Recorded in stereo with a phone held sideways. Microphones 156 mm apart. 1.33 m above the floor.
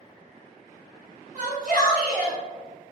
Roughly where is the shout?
Right.